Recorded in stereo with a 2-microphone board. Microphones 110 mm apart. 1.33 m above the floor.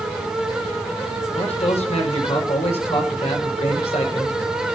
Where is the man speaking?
85° left, 5 m.